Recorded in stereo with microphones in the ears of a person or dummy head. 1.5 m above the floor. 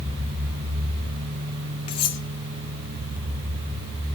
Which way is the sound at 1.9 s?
25° left (ahead or behind).